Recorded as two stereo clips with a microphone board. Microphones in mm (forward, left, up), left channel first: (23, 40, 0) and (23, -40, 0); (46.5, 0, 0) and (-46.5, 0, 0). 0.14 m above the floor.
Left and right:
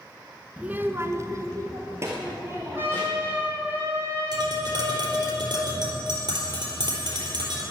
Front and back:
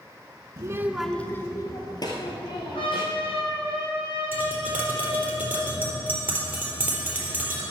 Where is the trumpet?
25° right, 5 m.